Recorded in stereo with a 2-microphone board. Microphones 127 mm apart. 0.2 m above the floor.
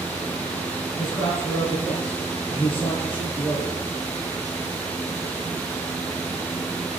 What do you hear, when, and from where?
1.0 s a man speaking: 15° left (ahead or behind), 3 m